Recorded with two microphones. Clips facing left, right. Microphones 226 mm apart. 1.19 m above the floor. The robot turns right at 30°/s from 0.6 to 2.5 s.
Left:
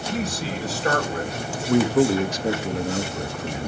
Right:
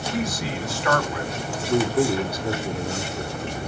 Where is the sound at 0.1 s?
30° left (ahead or behind), 4.5 m; by 1.3 s 50° left (ahead or behind), 4.5 m.